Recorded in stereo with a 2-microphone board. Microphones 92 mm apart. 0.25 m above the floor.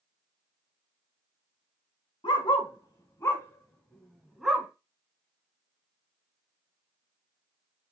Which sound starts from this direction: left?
A dog barking, at 2.2 s.